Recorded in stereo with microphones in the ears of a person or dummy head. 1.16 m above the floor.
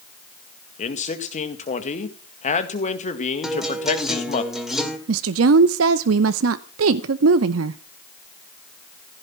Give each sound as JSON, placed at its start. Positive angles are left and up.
{"t": 0.8, "sound": "a man speaking", "side_deg": 40, "distance_m": 1.8}
{"t": 3.4, "sound": "a guitar", "side_deg": -5, "distance_m": 2.5}
{"t": 5.1, "sound": "a woman speaking", "side_deg": -75, "distance_m": 0.7}